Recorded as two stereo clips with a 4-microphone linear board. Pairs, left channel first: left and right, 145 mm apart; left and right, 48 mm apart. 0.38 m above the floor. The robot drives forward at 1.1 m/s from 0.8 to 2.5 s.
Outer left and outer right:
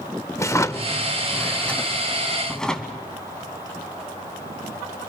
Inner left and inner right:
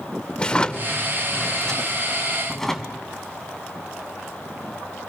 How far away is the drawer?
About 0.5 m.